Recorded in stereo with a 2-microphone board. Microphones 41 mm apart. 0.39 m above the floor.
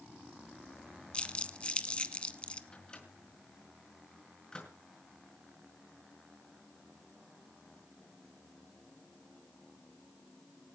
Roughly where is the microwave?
Centre.